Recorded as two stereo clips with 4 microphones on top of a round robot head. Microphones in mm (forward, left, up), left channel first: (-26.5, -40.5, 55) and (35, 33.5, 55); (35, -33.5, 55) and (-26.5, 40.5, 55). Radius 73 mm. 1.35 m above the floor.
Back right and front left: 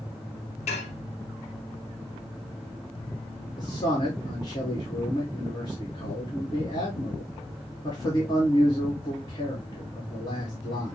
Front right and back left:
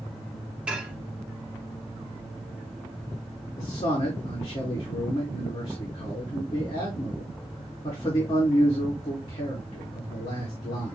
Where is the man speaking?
80° right, 1.6 m.